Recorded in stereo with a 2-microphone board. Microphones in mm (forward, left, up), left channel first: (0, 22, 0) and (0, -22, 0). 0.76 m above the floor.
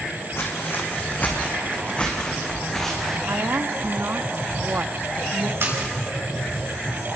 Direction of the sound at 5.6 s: 65° right (ahead or behind).